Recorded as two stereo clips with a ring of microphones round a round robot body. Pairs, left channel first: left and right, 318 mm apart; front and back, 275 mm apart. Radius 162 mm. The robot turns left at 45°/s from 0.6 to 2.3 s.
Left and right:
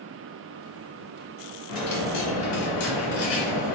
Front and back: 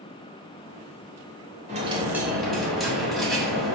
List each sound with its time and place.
1.7 s a dropped coin: 115° left, 1.3 m; by 3.8 s 90° left, 1.3 m